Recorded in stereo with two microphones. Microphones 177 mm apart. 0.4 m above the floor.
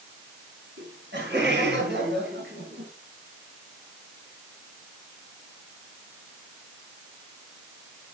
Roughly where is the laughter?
Right.